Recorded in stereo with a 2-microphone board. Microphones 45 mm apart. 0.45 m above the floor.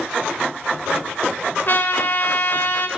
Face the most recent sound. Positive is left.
turn(degrees=50)  # may be behind; listen again after turning